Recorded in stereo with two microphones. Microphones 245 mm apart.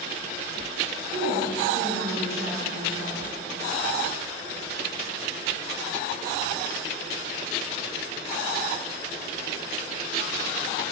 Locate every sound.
1.1 s a woman speaking: 60° right (ahead or behind), 1.9 m